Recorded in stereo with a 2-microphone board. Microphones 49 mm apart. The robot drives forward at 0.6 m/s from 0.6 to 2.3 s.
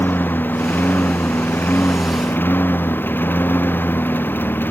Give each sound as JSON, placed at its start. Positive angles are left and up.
{"t": 0.0, "sound": "a lawn mower", "side_deg": 40}